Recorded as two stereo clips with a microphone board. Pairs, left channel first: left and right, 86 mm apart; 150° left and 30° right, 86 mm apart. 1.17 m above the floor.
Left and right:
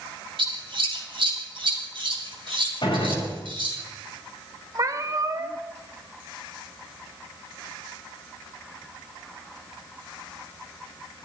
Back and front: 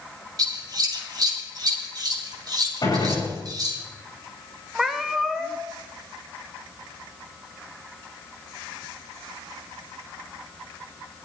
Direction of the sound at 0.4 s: 70° right.